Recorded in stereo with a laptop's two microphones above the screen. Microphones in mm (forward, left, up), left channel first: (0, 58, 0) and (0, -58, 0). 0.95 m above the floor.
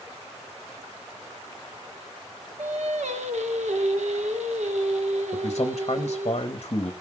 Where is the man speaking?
45° left (ahead or behind), 0.9 m.